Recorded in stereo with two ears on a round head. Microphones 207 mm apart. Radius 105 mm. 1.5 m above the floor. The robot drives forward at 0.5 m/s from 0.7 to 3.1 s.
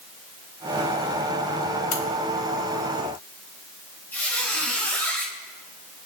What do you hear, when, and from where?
1.9 s a crack: 65° left (ahead or behind), 3.5 m
4.1 s a squeak: 10° left (ahead or behind), 4 m